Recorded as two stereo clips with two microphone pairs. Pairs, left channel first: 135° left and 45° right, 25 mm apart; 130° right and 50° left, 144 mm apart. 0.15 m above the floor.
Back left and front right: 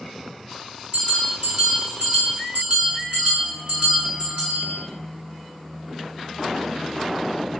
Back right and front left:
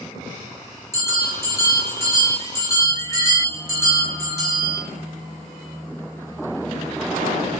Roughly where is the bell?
Right.